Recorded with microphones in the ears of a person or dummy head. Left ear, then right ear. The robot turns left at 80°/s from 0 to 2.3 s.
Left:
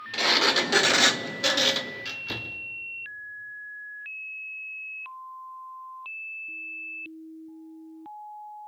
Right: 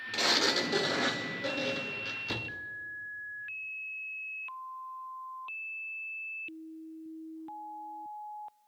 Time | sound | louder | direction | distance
0.1 | a sliding door | left 6 dB | 170° left | 0.9 m